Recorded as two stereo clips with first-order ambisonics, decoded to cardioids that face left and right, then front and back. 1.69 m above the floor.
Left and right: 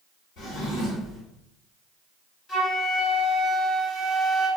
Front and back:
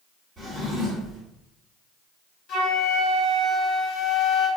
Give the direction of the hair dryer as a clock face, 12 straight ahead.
I don't hear a hair dryer.